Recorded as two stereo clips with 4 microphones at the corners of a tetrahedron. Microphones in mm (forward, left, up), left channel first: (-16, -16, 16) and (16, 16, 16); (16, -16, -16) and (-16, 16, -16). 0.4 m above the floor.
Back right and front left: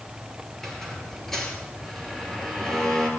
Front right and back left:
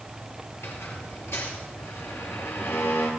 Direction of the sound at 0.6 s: 55° right.